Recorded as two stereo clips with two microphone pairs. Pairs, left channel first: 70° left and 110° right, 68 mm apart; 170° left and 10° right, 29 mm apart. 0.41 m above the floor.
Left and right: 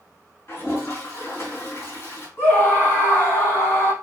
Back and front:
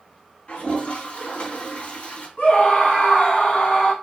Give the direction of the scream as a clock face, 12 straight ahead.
8 o'clock.